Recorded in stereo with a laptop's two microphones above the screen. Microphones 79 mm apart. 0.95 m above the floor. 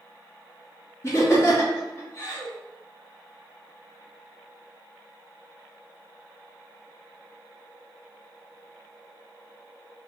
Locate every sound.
1.0 s laughter: 35° left (ahead or behind), 1.8 m